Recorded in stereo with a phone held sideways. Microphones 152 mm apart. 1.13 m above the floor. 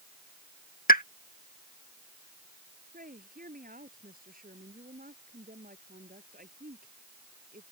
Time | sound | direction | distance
0.9 | a pop | 70° left (ahead or behind) | ?
2.9 | a woman speaking | 70° right (ahead or behind) | ?